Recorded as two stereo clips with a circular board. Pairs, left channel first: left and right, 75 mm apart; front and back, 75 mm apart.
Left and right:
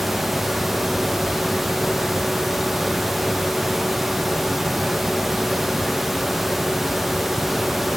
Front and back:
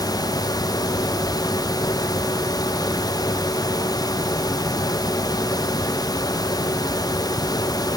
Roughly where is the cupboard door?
I don't hear a cupboard door.